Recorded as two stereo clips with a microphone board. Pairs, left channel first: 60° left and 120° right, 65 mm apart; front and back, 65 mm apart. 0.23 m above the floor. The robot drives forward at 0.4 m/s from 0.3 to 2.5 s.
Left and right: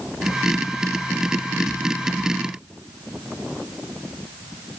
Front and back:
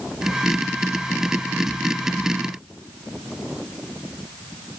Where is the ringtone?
I don't hear a ringtone.